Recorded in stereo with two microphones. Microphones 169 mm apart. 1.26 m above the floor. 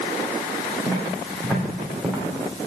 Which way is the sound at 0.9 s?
15° left (ahead or behind).